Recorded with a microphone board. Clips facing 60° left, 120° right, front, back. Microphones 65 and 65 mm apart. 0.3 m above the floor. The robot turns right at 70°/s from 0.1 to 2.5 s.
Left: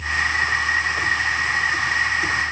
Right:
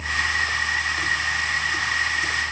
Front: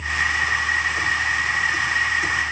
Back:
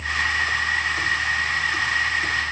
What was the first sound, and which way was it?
Only background noise.